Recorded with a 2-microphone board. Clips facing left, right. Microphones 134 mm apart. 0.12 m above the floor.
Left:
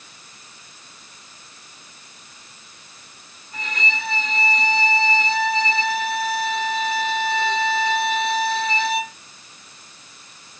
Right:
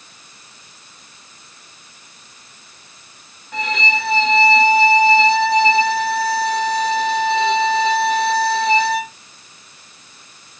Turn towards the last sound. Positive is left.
turn(degrees=-85)